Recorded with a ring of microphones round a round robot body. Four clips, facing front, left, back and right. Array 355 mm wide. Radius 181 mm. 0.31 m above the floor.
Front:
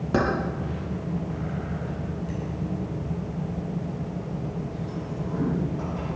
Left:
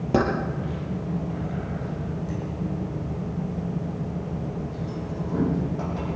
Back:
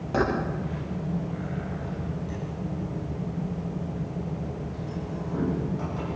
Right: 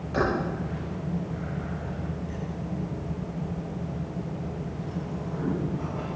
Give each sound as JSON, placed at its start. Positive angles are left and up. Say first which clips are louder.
{"t": 0.1, "sound": "keys jangling", "louder": "left 3 dB, front 1 dB", "azimuth_deg": 60, "distance_m": 8.0}